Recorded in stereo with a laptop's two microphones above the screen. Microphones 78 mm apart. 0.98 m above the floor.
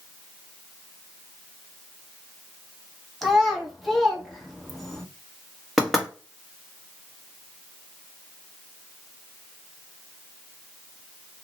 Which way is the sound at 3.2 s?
Centre (ahead or behind).